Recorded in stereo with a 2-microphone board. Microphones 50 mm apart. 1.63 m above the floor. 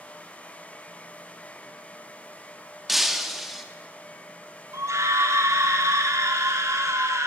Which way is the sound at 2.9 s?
Centre (ahead or behind).